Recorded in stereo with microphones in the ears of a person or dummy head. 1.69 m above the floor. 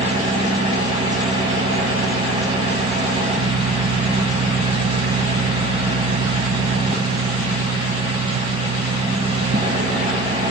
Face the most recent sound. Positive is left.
turn(degrees=-20)  # may be behind; listen again after turning